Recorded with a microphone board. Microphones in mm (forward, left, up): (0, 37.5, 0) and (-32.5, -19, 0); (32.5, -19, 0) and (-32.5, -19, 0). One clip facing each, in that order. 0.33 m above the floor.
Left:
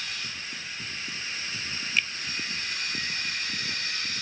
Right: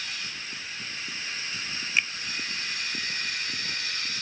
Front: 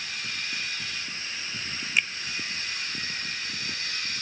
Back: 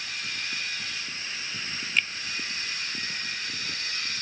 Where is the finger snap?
70° right.